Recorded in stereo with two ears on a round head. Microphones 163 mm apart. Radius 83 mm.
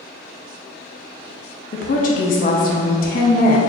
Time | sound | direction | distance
1.7 | a woman speaking | 45° left (ahead or behind) | 0.5 m